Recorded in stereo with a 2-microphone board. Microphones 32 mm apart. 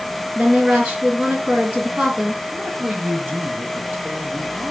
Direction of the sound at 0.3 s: 45° right (ahead or behind).